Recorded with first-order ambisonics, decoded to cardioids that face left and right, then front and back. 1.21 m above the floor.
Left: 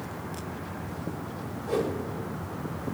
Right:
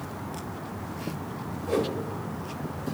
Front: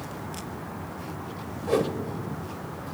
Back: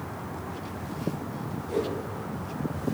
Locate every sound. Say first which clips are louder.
1.7 s a whoosh: right 1 dB, front 5 dB; 5° right, 1.0 m